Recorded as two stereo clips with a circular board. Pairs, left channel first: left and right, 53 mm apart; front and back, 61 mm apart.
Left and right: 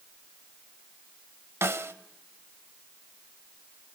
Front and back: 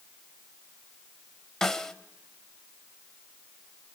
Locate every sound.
1.6 s a snare drum: 80° right, 0.8 m